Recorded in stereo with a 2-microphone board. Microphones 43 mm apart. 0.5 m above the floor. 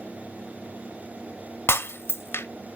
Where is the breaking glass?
70° left (ahead or behind), 0.6 m.